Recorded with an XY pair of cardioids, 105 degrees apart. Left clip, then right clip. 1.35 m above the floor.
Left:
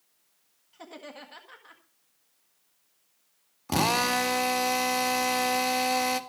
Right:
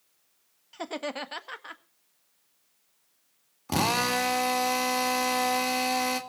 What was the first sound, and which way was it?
Laughter, 65° right.